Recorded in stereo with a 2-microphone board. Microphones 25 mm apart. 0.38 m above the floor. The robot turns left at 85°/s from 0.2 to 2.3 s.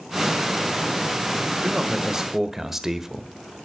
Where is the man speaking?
100° right, 1.3 m; by 3.3 s 155° right, 1.3 m.